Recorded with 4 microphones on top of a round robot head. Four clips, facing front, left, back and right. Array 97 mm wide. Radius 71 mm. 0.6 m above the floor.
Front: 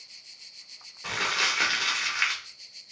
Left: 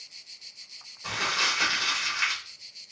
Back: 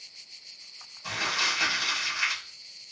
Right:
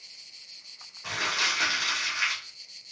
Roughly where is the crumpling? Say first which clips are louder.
Left 1 dB, front 2 dB; ahead.